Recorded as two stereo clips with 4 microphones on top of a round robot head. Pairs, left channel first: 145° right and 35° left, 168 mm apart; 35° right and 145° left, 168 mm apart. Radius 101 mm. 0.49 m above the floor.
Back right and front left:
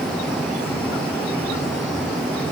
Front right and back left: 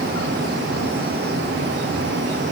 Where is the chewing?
No chewing in this recording.